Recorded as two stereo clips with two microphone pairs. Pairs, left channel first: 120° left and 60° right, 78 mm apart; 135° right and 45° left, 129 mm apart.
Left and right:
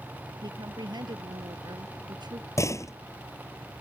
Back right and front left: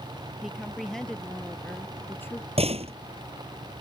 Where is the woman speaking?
45° right; by 2.5 s 70° right.